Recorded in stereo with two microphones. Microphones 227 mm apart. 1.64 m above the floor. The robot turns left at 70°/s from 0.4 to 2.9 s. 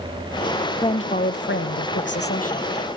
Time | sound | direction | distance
0.8 | a woman speaking | 160° left | 1.0 m